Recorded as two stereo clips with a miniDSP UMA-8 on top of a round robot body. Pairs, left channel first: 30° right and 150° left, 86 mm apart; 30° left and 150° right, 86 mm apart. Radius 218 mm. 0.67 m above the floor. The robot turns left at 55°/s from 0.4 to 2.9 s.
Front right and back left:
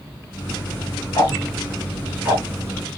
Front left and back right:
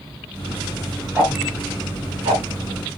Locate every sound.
1.1 s ticking: 75° right, 1.1 m; by 2.4 s 145° right, 1.1 m